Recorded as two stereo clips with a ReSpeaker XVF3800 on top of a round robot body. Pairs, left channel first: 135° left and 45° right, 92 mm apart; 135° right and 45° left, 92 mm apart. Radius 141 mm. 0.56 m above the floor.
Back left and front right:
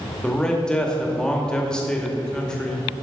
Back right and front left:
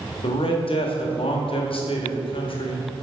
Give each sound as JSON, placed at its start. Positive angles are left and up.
{"t": 0.2, "sound": "a man speaking", "azimuth_deg": -145, "distance_m": 2.0}